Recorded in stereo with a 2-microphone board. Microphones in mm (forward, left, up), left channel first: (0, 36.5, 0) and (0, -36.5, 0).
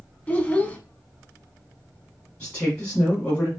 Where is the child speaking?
20° left (ahead or behind), 0.6 m.